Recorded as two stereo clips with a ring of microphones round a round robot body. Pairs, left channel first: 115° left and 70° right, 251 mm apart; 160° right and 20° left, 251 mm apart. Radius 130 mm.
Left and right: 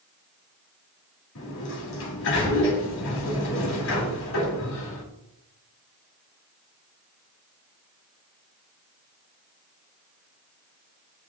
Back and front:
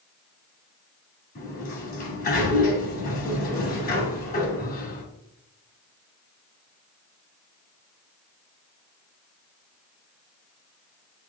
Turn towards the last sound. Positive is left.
turn(degrees=150)